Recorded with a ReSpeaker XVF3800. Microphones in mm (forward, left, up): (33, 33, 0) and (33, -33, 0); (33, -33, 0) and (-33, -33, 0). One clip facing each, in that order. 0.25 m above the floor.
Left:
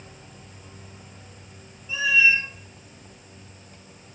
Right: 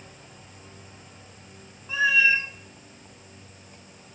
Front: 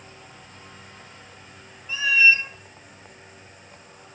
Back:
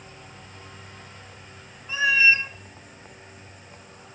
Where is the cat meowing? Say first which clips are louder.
Even, front 1 dB; 125° right, 0.8 m.